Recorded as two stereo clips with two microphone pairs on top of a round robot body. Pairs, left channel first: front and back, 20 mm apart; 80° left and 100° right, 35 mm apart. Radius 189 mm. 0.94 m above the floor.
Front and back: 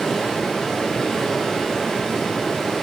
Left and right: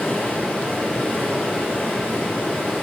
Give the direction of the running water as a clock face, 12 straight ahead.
10 o'clock.